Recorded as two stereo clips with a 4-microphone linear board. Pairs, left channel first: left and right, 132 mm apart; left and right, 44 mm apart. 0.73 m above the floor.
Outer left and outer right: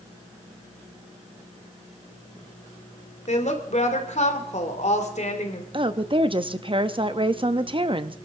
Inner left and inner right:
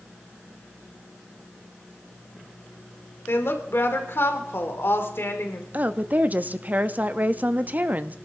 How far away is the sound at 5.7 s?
About 0.8 m.